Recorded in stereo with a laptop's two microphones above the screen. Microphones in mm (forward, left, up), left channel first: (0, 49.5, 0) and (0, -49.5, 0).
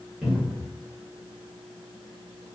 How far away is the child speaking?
I don't hear a child speaking.